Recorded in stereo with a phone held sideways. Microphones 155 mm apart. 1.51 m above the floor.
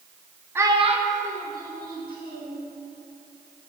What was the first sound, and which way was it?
A child speaking, 15° right (ahead or behind).